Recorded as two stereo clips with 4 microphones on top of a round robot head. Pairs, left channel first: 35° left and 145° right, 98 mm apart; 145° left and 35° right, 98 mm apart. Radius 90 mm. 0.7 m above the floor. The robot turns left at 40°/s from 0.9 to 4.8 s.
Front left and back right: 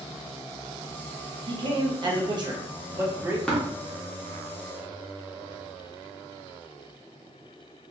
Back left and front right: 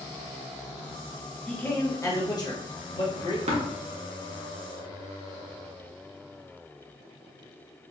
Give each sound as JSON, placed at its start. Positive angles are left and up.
{"t": 1.5, "sound": "a man speaking", "azimuth_deg": -140, "distance_m": 1.0}
{"t": 3.5, "sound": "tapping", "azimuth_deg": -45, "distance_m": 0.9}